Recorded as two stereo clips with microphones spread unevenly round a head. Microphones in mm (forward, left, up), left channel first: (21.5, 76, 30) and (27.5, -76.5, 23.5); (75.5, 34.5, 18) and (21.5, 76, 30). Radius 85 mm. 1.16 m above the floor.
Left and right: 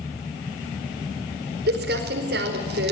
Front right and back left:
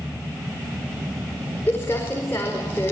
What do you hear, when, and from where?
1.7 s crumpling: 110° right, 4.5 m